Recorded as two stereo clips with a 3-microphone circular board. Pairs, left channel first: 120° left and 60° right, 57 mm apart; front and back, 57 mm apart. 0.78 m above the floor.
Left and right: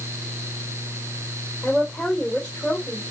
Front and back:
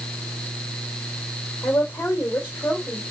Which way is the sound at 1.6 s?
50° left.